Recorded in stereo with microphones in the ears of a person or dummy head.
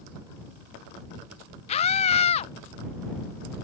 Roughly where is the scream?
Left.